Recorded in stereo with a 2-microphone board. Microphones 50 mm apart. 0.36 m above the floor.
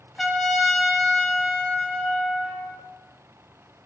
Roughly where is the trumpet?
Centre.